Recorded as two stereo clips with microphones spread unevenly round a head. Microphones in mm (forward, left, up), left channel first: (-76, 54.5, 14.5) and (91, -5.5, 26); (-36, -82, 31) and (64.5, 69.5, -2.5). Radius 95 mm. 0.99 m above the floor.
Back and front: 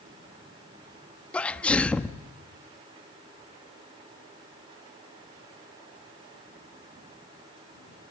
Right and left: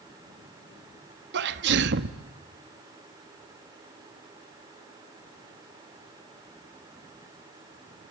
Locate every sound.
1.3 s a sneeze: 75° left, 1.5 m